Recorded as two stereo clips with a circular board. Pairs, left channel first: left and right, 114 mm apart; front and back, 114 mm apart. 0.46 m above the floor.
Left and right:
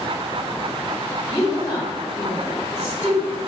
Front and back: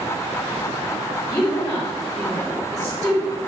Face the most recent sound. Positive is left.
turn(degrees=155)